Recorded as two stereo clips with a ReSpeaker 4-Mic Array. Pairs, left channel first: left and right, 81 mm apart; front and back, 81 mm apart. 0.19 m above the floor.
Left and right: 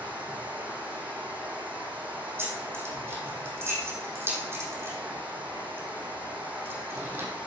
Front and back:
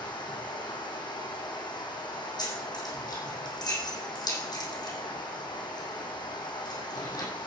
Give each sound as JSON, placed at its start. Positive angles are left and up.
{"t": 0.0, "sound": "running water", "azimuth_deg": -20, "distance_m": 3.5}
{"t": 2.4, "sound": "keys jangling", "azimuth_deg": -35, "distance_m": 5.0}